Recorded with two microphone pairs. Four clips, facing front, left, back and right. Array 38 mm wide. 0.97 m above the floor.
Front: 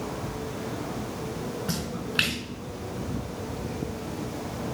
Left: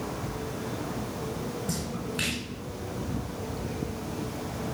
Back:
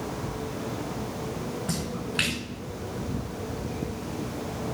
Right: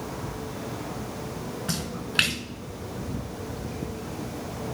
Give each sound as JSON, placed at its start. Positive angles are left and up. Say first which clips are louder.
{"t": 1.7, "sound": "a splash", "louder": "right 1 dB, even", "azimuth_deg": -70, "distance_m": 1.9}